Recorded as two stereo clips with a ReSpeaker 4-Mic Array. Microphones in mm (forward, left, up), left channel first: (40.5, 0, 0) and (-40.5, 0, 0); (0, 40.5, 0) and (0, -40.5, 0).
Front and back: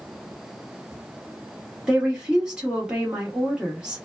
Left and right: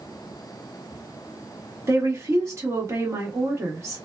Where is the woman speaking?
110° right, 1.3 m.